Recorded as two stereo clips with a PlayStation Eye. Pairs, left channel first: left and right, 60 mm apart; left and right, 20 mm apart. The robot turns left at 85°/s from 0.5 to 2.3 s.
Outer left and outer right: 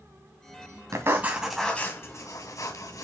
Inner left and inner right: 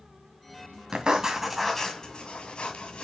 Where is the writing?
55° right (ahead or behind), 2 m; by 3.0 s 65° left (ahead or behind), 2 m.